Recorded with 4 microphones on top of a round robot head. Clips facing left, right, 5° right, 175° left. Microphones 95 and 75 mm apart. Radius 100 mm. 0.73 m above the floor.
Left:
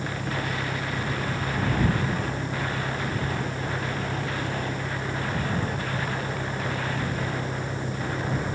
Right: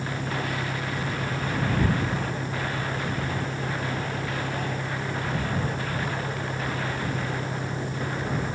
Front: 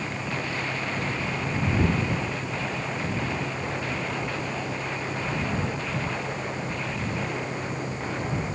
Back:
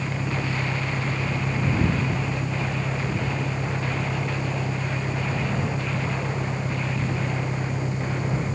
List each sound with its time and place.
0.0 s an engine running: 155° right